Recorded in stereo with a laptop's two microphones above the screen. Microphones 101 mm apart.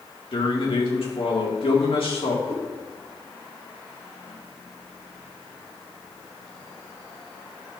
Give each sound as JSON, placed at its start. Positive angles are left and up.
{"t": 0.3, "sound": "a man speaking", "side_deg": 65, "distance_m": 1.9}
{"t": 2.5, "sound": "a cat meowing", "side_deg": 35, "distance_m": 3.0}